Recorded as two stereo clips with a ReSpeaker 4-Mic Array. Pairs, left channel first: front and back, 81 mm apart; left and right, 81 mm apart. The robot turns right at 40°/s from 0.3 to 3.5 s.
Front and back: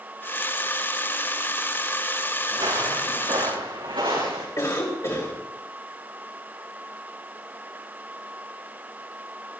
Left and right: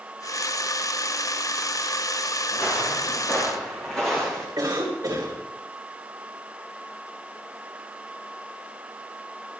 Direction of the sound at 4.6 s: 40° right.